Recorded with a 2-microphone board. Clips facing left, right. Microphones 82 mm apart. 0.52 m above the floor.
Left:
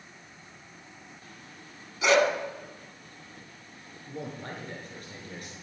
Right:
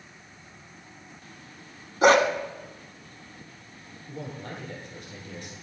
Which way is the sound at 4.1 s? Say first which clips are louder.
Even; 45° left (ahead or behind).